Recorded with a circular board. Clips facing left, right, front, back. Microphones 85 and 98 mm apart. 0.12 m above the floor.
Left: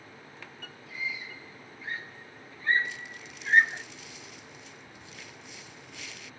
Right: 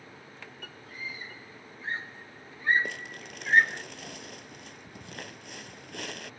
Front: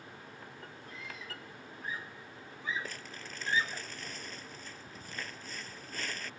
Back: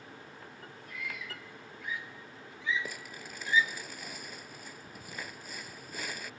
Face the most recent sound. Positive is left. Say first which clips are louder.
# right 3 dB, back 1 dB
turn(degrees=-100)